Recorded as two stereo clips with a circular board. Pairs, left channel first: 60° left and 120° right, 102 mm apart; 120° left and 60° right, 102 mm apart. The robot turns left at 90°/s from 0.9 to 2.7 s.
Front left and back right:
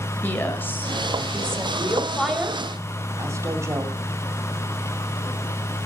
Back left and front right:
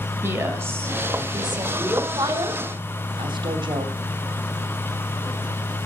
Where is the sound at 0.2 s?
Straight ahead, 2 m; by 1.6 s 70° right, 2 m.